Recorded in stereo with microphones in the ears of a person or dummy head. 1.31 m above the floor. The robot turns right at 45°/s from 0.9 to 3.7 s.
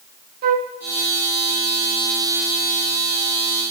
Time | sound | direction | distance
0.4 | a flute | 40° right (ahead or behind) | 0.7 m